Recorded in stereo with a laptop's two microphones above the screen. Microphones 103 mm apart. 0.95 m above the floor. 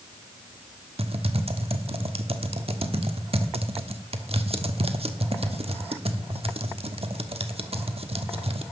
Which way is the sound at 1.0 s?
70° right (ahead or behind).